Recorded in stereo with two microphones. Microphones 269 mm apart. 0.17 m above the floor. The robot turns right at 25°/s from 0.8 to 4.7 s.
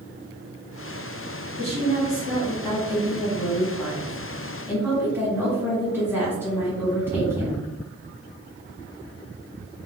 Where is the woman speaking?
25° left (ahead or behind), 1.5 m; by 7.7 s 10° right (ahead or behind), 1.5 m.